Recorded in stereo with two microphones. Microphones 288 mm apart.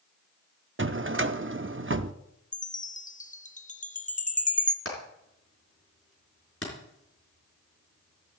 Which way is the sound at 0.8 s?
45° right (ahead or behind).